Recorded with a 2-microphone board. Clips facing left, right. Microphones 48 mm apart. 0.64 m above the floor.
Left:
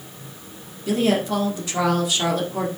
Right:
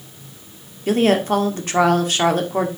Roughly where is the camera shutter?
I don't hear a camera shutter.